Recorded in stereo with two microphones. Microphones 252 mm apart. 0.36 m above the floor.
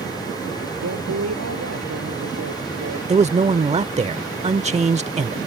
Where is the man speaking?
25° right (ahead or behind).